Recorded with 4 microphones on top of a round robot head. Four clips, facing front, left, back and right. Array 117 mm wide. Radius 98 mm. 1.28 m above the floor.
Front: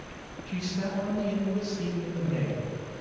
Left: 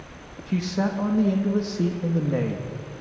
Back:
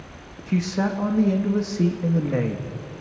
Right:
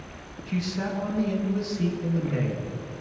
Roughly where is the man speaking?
Behind left.